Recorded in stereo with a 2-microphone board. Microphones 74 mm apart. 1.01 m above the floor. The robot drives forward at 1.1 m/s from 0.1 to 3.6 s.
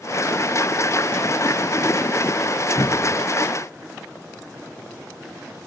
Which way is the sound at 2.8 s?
55° left (ahead or behind).